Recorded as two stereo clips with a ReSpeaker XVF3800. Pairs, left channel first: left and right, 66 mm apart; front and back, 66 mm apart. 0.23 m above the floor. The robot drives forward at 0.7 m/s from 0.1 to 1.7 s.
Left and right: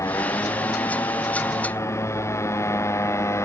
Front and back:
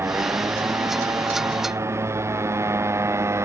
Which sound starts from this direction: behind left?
A motorcycle, at 0.0 s.